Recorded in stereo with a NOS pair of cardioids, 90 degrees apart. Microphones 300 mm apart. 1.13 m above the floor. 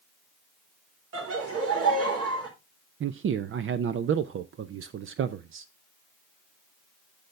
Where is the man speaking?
45° right, 0.7 m.